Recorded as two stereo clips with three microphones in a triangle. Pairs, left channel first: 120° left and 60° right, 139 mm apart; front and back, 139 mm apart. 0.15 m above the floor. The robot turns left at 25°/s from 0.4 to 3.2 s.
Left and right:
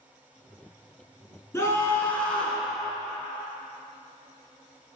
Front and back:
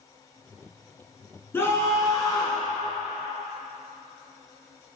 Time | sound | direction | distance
1.5 | a scream | 65° left | 1.4 m